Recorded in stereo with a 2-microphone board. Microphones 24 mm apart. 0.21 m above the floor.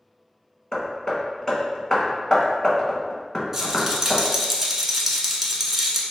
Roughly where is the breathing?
I don't hear breathing.